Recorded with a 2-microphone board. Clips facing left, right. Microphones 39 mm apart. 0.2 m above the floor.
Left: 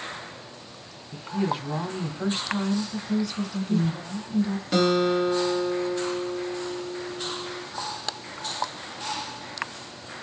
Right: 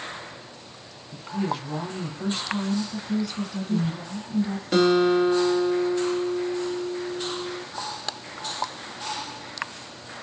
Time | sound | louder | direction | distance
1.1 | a woman speaking | left 1 dB | 15° left (ahead or behind) | 1.2 m
2.9 | a woman speaking | even | 10° right (ahead or behind) | 2 m
4.7 | a guitar | right 3 dB | 10° right (ahead or behind) | 1.7 m